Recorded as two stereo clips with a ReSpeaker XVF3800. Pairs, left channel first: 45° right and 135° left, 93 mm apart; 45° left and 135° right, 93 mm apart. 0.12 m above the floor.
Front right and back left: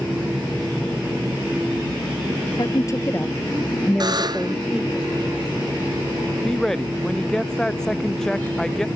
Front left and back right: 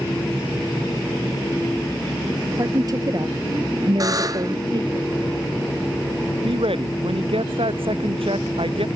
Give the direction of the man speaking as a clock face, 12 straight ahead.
4 o'clock.